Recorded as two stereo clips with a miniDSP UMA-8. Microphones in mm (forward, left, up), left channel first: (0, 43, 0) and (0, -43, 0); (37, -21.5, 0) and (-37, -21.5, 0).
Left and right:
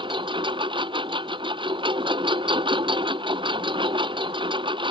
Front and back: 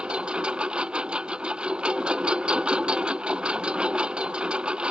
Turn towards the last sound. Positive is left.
turn(degrees=-105)